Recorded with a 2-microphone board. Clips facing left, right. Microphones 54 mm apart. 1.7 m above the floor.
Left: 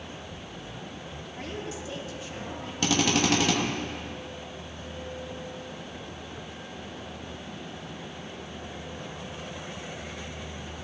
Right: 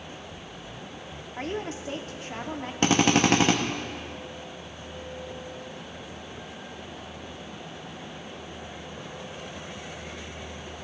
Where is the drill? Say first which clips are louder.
Right 3 dB; 35° right (ahead or behind), 1.0 m.